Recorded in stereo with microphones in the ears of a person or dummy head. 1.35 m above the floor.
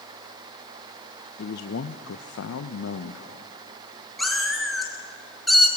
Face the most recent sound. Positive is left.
turn(degrees=0)  # may be behind; listen again after turning